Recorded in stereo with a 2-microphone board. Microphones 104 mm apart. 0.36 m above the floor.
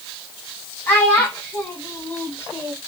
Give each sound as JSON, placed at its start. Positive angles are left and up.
{"t": 0.9, "sound": "a child speaking", "side_deg": 15, "distance_m": 2.5}